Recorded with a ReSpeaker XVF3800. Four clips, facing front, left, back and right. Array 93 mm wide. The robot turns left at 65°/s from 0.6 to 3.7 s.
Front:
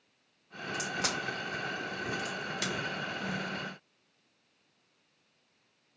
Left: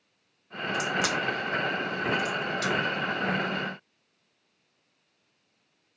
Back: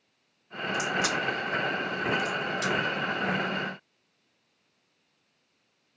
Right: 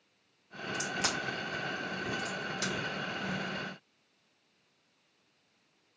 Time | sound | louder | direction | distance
0.7 | a crack | left 7 dB, back 6 dB | 115° left | 2.5 m